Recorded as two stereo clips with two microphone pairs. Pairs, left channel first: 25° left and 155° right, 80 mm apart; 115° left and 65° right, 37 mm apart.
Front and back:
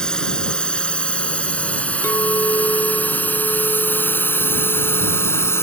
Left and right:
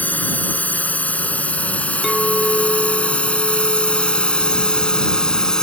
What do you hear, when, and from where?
0.0 s a drone: 100° left; by 5.6 s 55° left
2.0 s a clink: 20° left